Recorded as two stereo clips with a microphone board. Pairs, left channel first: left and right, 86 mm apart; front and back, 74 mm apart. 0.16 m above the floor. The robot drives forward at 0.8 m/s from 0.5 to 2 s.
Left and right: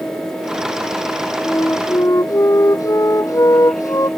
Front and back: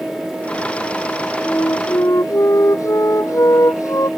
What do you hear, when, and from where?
1.4 s a flute: 40° left